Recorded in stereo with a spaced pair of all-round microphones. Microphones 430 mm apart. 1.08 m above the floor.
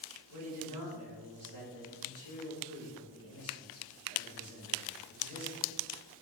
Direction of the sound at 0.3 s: 45° left (ahead or behind).